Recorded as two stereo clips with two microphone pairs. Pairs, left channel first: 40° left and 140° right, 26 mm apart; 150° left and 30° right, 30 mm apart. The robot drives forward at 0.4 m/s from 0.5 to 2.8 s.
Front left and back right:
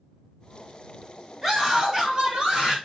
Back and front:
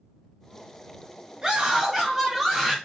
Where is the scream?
90° right, 1.0 m; by 2.8 s 135° right, 1.2 m.